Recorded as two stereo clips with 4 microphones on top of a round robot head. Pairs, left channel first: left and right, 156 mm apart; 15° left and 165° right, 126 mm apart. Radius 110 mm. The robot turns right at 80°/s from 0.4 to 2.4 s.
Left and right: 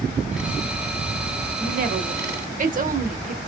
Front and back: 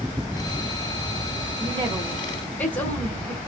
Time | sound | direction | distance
1.6 | a woman speaking | 130° right | 1.3 m